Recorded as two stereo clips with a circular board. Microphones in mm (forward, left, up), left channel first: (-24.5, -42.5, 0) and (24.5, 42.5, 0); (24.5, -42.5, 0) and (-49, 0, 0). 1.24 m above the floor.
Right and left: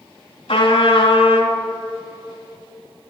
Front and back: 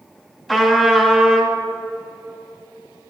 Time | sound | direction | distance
0.5 | a trumpet | 120° right | 4 m